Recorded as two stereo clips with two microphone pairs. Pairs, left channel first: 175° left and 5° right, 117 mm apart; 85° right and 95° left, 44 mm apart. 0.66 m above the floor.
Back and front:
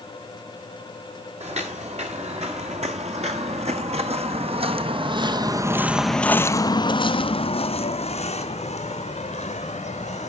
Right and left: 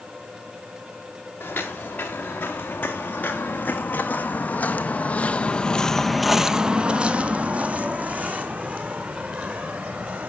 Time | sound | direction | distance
1.4 | footsteps | 35° right | 3 m